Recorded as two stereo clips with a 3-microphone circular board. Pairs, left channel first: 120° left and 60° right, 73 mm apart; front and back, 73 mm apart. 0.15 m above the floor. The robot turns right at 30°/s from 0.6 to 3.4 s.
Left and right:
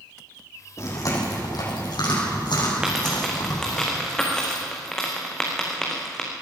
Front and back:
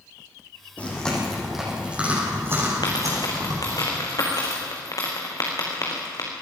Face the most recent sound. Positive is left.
turn(degrees=35)